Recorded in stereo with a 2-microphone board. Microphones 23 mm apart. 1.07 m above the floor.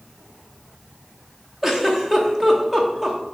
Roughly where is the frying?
I don't hear frying.